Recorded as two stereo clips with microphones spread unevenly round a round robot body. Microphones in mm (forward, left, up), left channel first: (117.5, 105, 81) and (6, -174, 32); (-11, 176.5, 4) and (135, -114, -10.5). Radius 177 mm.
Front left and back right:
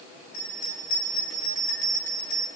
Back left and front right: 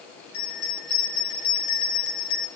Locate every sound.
0.3 s a bell: 120° left, 6.5 m